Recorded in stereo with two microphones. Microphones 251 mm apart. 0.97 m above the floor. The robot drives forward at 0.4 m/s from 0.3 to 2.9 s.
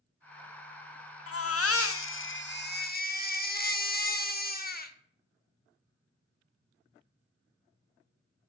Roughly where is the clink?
No clink in this recording.